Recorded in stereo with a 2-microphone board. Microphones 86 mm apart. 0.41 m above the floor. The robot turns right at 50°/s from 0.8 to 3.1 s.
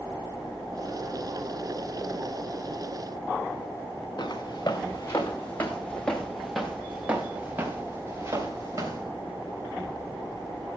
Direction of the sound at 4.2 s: 55° left (ahead or behind).